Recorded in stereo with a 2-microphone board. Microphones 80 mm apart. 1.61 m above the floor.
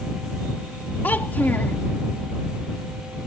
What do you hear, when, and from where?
1.0 s a child speaking: 25° left (ahead or behind)